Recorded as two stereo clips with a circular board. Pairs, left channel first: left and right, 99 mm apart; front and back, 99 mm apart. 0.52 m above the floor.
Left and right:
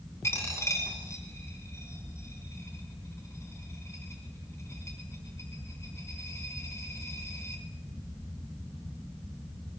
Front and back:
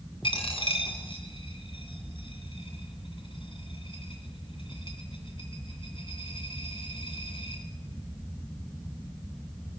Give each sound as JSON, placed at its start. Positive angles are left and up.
{"t": 0.2, "sound": "a dropped coin", "azimuth_deg": 30, "distance_m": 2.5}